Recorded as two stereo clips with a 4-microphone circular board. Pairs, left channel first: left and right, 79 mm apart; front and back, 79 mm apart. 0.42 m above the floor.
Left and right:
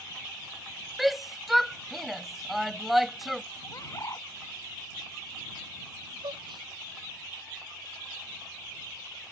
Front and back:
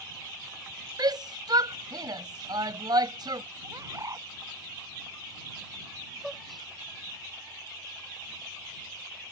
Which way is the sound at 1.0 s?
Straight behind.